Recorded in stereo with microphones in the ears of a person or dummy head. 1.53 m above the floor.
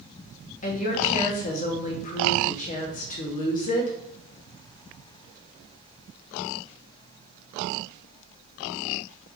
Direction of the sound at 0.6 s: 40° left (ahead or behind).